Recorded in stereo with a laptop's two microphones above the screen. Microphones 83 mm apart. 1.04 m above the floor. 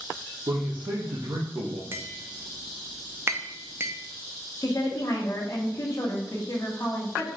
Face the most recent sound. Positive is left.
turn(degrees=45)  # may be behind; listen again after turning